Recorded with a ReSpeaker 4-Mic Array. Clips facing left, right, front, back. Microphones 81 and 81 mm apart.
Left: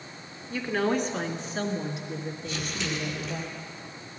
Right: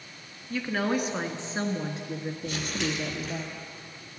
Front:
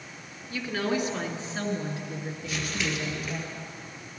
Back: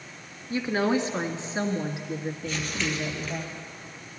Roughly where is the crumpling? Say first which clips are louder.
Right 3 dB, front 1 dB; right.